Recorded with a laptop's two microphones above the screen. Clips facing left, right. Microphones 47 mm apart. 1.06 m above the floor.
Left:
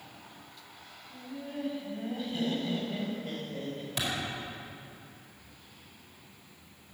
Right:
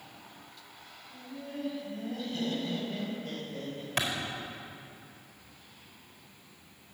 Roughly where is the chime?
I don't hear a chime.